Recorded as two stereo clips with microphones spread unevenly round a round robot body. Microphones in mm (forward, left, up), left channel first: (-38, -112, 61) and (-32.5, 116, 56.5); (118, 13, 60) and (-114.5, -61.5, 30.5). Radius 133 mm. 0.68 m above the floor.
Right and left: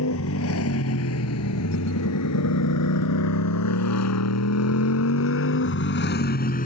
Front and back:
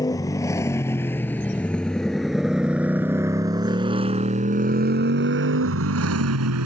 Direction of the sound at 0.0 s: 60° right.